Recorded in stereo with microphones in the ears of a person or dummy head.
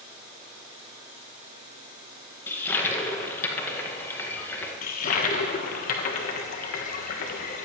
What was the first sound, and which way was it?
A toilet flushing, 15° left (ahead or behind).